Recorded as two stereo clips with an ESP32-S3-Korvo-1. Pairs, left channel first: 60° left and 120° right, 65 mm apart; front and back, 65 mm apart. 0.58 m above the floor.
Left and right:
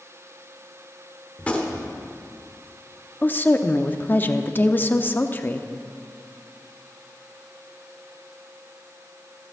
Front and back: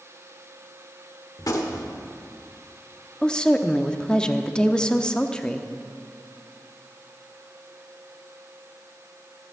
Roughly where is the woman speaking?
Ahead left.